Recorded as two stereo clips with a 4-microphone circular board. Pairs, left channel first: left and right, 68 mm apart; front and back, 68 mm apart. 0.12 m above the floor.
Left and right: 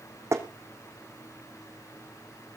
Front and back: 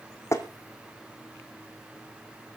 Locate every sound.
0.3 s tapping: 45° right, 2.5 m